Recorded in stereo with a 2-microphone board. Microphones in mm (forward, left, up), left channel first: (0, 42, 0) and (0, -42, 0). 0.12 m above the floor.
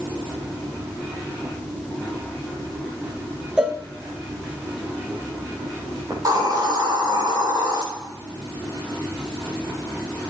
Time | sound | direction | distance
3.6 | a cowbell | 10° right (ahead or behind) | 1.5 m
6.1 | a hiss | 45° right (ahead or behind) | 4.5 m